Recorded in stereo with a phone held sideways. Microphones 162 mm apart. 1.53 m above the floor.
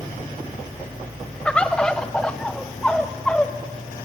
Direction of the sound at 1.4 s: 5° left (ahead or behind).